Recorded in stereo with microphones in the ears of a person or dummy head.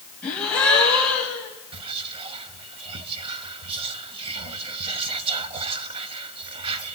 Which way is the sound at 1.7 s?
30° right (ahead or behind).